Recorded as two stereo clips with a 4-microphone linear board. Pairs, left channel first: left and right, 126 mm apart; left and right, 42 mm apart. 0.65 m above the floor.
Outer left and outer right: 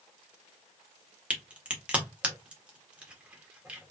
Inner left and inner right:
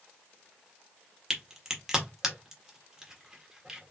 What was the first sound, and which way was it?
A crack, 10° right (ahead or behind).